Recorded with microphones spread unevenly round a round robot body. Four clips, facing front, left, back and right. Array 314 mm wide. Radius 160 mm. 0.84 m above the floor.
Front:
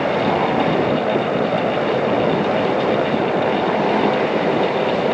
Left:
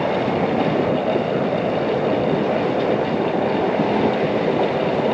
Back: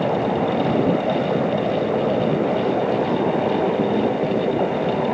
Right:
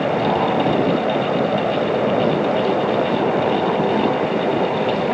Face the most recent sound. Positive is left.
No sound to turn to.